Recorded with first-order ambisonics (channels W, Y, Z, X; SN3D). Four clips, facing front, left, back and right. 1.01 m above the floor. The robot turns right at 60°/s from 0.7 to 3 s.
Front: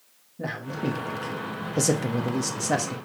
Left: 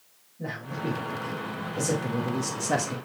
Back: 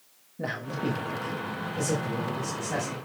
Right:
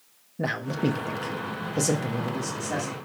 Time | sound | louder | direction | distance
0.4 | a man speaking | right 6 dB, front 1 dB | 90° right | 1.1 m